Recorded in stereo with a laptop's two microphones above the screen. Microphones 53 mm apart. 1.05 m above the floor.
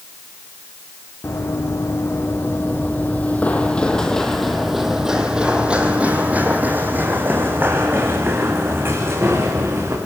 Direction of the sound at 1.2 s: 60° left (ahead or behind).